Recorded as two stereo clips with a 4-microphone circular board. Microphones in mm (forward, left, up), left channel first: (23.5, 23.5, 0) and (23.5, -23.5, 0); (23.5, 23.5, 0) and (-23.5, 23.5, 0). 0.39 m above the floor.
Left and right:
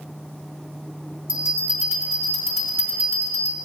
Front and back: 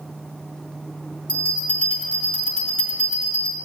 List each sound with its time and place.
1.3 s a bell: 60° right, 2.5 m